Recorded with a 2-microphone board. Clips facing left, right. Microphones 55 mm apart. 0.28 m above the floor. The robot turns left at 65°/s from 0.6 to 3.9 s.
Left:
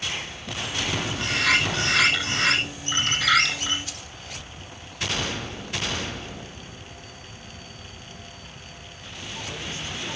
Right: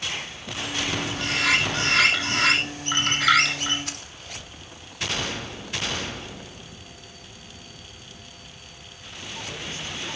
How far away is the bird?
About 8 m.